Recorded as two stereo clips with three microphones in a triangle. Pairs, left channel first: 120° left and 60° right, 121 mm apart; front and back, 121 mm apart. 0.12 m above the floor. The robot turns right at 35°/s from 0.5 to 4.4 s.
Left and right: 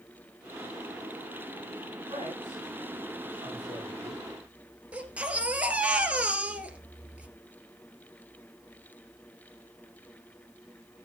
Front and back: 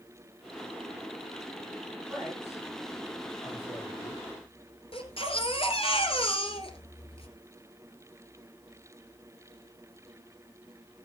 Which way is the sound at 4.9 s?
15° left.